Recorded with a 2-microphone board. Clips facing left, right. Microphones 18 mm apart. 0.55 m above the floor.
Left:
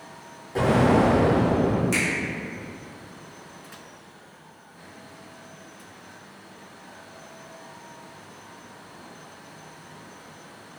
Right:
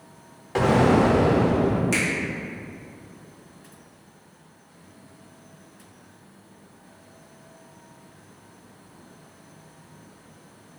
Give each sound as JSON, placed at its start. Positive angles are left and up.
{"t": 0.6, "sound": "an explosion", "side_deg": -50, "distance_m": 0.6}
{"t": 1.9, "sound": "a finger snap", "side_deg": -15, "distance_m": 1.4}